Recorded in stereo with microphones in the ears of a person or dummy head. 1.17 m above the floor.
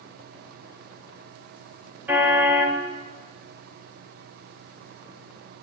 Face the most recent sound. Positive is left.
turn(degrees=-10)  # may be behind; listen again after turning